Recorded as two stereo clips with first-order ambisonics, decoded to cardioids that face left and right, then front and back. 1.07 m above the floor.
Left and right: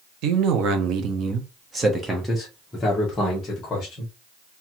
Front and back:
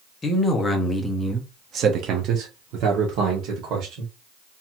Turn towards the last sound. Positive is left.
turn(degrees=155)